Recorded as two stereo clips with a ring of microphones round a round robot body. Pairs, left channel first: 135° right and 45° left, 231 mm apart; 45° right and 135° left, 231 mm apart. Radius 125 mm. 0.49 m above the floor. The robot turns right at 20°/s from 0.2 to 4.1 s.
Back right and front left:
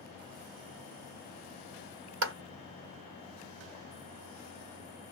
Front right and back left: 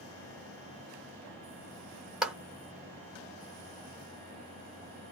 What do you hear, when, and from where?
2.2 s a clap: 50° left, 1.0 m